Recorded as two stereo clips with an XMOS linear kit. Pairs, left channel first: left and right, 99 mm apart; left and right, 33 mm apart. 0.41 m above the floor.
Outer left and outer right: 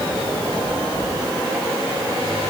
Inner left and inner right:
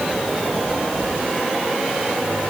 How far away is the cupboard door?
No cupboard door in this recording.